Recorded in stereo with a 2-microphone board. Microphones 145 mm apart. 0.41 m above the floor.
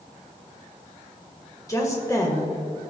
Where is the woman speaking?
25° left (ahead or behind), 1.5 m.